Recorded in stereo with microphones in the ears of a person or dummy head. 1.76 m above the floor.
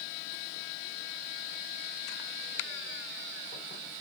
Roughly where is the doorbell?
No doorbell in this recording.